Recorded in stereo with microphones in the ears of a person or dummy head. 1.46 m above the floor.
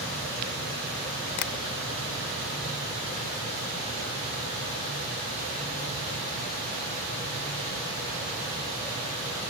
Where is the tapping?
50° left (ahead or behind), 0.8 m.